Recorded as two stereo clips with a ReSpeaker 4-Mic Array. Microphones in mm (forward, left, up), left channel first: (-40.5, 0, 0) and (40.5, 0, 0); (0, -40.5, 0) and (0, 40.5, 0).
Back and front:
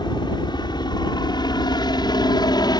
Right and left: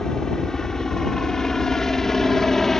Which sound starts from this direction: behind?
A helicopter, at 0.0 s.